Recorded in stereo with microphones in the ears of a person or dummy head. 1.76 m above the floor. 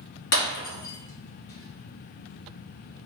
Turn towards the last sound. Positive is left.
turn(degrees=60)  # may be behind; listen again after turning